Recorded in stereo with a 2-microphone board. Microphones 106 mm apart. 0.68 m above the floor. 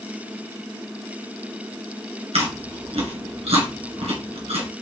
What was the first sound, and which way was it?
Chewing, 75° right (ahead or behind).